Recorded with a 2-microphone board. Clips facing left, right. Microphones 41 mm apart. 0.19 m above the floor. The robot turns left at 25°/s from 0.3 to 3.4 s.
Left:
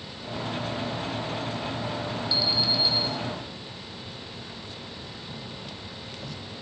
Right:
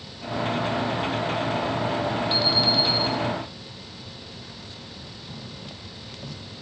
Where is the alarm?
55° right (ahead or behind), 3.5 m; by 3.0 s 60° right (ahead or behind), 3.5 m.